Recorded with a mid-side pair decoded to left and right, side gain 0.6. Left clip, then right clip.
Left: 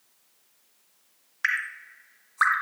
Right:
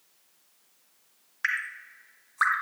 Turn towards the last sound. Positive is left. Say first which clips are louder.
# left 2 dB
turn(degrees=15)